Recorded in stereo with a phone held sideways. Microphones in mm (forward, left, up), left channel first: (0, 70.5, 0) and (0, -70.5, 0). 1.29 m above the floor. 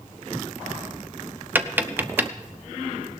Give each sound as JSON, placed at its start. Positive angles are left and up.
{"t": 1.6, "sound": "tapping", "side_deg": -15, "distance_m": 0.7}